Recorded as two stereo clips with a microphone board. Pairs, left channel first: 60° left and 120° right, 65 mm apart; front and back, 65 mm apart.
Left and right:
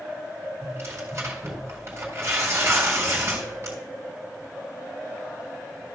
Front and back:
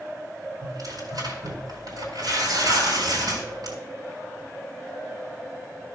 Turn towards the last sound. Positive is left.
turn(degrees=-170)